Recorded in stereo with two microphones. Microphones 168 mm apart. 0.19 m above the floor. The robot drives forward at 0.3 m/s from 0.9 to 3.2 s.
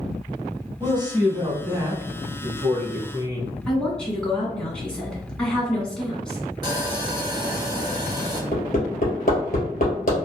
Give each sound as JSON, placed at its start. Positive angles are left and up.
{"t": 0.8, "sound": "a man speaking", "side_deg": -25, "distance_m": 1.0}
{"t": 3.7, "sound": "a woman speaking", "side_deg": 5, "distance_m": 1.4}
{"t": 6.6, "sound": "sawing", "side_deg": -25, "distance_m": 1.1}
{"t": 8.5, "sound": "hammering", "side_deg": 55, "distance_m": 2.0}